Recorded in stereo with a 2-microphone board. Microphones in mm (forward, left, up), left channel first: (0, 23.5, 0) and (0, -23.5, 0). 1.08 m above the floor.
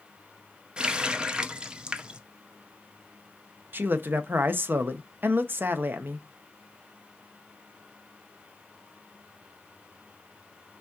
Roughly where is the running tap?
Centre.